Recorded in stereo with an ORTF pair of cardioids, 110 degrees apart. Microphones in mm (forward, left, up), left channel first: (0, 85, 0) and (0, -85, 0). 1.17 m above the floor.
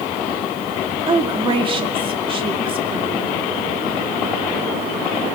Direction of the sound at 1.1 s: 30° right.